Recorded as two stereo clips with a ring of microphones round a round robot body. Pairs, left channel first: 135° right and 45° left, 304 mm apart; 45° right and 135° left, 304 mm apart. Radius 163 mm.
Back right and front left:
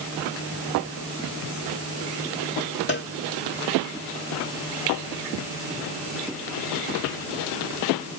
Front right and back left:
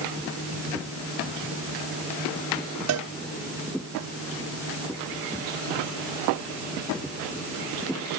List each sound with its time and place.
2.9 s a cowbell: 170° left